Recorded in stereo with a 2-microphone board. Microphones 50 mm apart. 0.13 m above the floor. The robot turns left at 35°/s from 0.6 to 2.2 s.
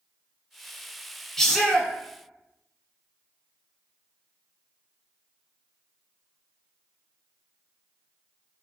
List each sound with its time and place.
1.4 s a shout: 10° left (ahead or behind), 1.1 m; by 1.9 s 15° left (ahead or behind), 1.1 m